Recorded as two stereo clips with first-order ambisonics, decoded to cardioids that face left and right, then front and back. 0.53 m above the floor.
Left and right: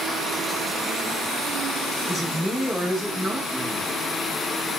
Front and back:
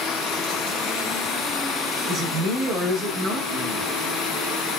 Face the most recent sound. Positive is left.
turn(degrees=180)